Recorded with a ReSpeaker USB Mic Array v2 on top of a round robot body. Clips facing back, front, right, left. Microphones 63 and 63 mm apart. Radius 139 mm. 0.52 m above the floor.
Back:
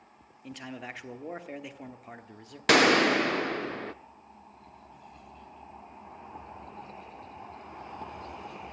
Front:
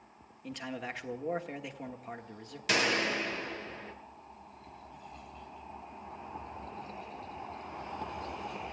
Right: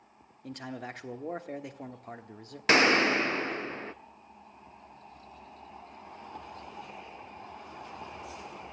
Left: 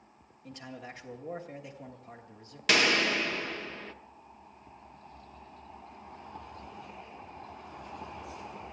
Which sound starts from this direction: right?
A man speaking, at 0.4 s.